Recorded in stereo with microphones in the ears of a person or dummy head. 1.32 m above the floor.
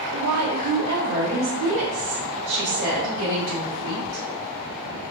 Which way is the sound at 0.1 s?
55° right (ahead or behind).